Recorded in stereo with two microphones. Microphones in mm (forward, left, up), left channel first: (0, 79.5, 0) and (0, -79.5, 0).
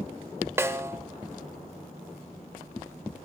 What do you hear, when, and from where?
0.6 s a snare drum: 15° right (ahead or behind), 0.7 m